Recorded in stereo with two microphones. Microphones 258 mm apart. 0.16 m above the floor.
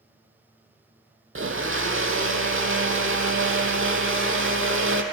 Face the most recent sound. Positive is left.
turn(degrees=-55)  # may be behind; listen again after turning